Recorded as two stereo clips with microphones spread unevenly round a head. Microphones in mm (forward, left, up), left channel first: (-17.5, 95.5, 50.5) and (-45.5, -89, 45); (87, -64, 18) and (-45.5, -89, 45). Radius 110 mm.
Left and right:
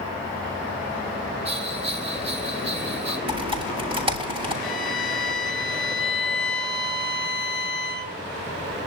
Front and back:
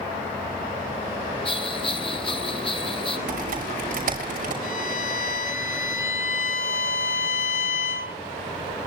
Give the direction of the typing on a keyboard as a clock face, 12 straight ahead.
5 o'clock.